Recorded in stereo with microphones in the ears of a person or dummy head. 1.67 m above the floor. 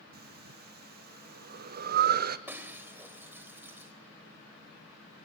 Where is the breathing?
50° right (ahead or behind), 0.7 m.